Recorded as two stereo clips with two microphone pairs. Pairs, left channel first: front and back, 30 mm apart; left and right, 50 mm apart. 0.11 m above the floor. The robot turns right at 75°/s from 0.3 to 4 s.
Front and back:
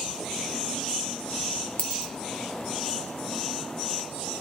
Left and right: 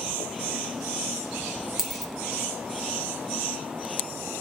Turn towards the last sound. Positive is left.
turn(degrees=150)